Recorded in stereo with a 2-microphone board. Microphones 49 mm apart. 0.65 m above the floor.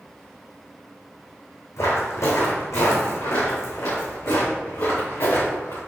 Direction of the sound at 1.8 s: 75° left (ahead or behind).